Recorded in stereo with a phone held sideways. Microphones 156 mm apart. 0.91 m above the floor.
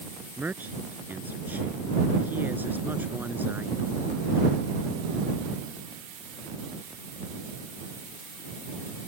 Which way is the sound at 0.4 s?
15° right (ahead or behind).